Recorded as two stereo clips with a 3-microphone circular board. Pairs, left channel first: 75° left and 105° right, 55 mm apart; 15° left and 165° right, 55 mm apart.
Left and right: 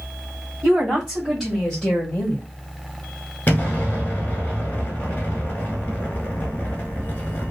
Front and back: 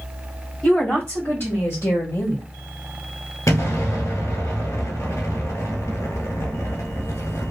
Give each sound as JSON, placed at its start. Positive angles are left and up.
{"t": 0.6, "sound": "a woman speaking", "azimuth_deg": -50, "distance_m": 1.9}
{"t": 3.5, "sound": "an explosion", "azimuth_deg": 20, "distance_m": 1.3}